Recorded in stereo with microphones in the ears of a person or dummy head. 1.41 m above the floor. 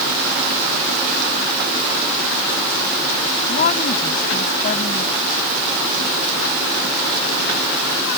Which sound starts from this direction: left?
A woman speaking, at 3.5 s.